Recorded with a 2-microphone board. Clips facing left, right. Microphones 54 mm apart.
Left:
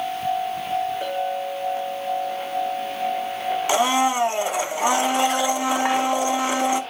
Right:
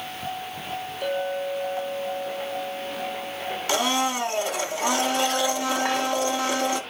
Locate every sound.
1.0 s a clink: 35° left (ahead or behind), 6 m
3.7 s a blender: 20° left (ahead or behind), 0.9 m